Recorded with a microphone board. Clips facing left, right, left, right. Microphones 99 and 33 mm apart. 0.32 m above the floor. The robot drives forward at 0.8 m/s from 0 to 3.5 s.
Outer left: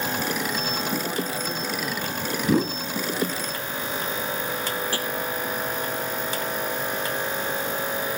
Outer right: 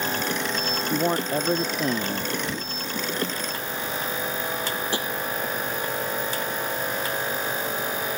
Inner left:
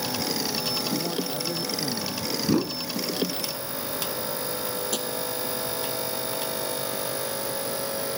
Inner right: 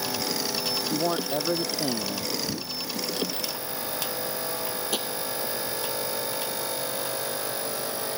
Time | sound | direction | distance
0.9 | a man speaking | 45° right (ahead or behind) | ?
2.4 | a whoosh | 65° left (ahead or behind) | ?
4.9 | tapping | 20° right (ahead or behind) | ?